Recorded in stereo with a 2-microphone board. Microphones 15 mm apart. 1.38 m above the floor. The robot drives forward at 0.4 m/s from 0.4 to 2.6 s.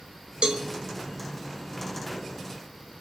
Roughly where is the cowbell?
Right.